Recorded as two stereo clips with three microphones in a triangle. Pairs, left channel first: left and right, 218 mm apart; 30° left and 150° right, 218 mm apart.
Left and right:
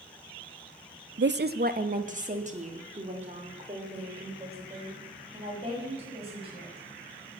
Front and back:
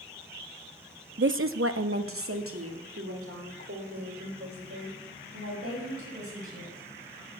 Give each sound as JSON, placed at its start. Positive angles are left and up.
{"t": 1.2, "sound": "a woman speaking", "azimuth_deg": -115, "distance_m": 0.6}